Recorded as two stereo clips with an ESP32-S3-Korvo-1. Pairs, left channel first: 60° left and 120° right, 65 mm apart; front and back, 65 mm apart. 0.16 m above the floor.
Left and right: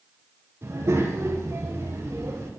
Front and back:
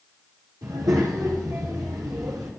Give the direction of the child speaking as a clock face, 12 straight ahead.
6 o'clock.